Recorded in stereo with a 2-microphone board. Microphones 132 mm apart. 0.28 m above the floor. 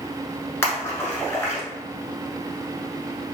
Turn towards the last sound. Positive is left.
turn(degrees=20)  # may be behind; listen again after turning